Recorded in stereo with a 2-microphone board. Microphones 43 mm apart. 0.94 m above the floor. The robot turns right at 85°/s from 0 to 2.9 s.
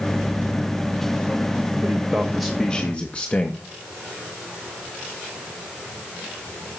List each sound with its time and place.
1.8 s a man speaking: 50° right, 0.8 m; by 3.6 s 40° left, 0.8 m